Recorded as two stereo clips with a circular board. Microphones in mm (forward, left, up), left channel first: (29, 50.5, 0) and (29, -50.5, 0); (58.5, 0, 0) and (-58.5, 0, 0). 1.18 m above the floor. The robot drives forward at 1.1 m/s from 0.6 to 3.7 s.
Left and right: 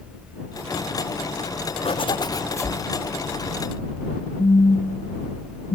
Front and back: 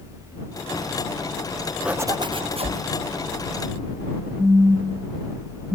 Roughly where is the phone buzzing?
Left.